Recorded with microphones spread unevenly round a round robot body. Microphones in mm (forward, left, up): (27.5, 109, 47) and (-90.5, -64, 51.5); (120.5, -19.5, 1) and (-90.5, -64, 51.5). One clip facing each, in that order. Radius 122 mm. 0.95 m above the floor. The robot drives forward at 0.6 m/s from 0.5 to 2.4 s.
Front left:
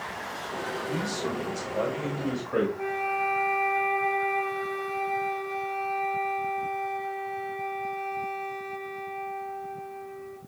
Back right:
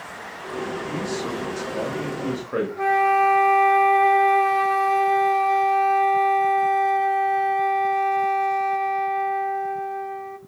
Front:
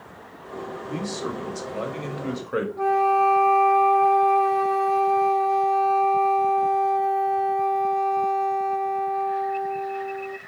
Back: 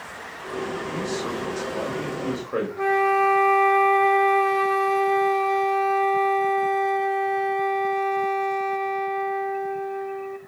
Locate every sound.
0.9 s a man speaking: 35° right, 2.5 m; by 2.7 s 55° right, 1.7 m
2.8 s a flute: 105° right, 0.7 m